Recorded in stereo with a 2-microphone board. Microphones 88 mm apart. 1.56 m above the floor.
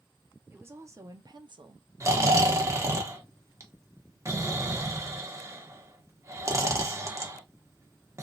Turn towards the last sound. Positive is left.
turn(degrees=-30)  # may be behind; listen again after turning